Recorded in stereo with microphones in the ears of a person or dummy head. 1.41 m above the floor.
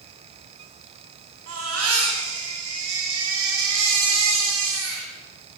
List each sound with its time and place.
1.5 s a baby crying: 85° right, 9.5 m